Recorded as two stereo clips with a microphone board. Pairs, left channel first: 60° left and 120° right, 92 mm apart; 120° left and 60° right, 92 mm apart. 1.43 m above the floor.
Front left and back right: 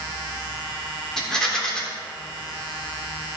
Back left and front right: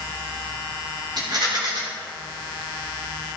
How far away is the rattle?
About 3 m.